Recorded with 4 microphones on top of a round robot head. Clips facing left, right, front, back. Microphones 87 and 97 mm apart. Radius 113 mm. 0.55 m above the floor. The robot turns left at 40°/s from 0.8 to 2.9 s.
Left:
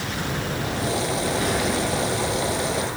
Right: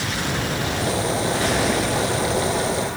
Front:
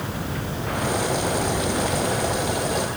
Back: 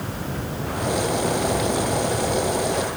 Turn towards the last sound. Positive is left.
No sound to turn to.